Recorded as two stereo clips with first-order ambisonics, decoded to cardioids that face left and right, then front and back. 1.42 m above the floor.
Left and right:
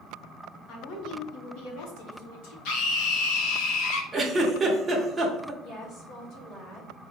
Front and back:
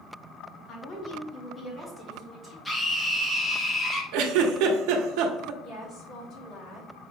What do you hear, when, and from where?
0.7 s a woman speaking: 50° left, 1.3 m; by 2.5 s 100° left, 1.4 m
2.6 s a scream: 80° left, 1.1 m
4.1 s a giggle: 175° right, 0.8 m
5.6 s a woman speaking: 50° left, 1.9 m